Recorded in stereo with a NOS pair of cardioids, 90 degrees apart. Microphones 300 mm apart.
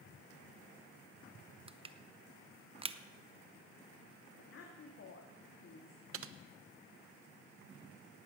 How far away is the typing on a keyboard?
About 0.8 m.